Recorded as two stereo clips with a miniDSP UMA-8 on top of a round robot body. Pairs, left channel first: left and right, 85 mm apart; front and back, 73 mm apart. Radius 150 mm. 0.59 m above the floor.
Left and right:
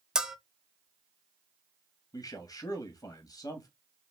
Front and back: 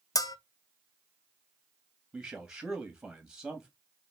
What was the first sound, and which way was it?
A bell, 10° right.